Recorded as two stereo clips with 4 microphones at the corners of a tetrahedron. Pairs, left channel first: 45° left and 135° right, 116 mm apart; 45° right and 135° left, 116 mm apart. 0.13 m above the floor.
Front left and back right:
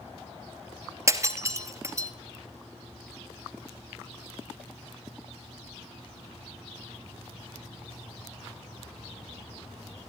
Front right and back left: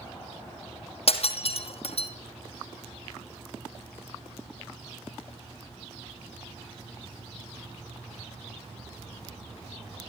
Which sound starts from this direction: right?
Breaking glass, at 1.1 s.